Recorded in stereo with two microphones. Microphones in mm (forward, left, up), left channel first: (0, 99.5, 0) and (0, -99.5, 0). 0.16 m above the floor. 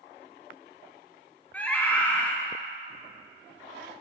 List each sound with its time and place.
1.5 s a scream: 10° left (ahead or behind), 1.6 m